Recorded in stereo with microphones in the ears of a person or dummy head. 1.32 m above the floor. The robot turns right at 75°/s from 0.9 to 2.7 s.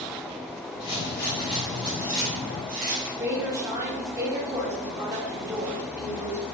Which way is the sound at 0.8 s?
100° left.